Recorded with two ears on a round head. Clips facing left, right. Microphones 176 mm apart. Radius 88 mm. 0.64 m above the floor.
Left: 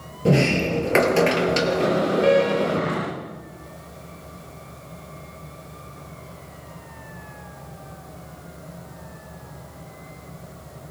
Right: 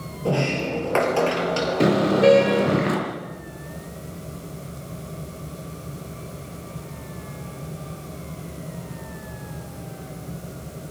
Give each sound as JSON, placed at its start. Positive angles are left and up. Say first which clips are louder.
{"t": 0.2, "sound": "a sliding door", "louder": "left 4 dB", "side_deg": 25, "distance_m": 2.5}
{"t": 1.8, "sound": "a car horn", "louder": "right 5 dB", "side_deg": -60, "distance_m": 5.5}